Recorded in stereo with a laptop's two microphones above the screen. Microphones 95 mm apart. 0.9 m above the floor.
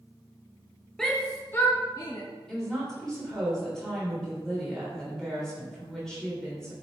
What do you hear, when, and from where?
1.0 s a shout: 5° left (ahead or behind), 1.1 m; by 2.2 s 45° left (ahead or behind), 1.3 m
2.5 s a woman speaking: 5° left (ahead or behind), 3.5 m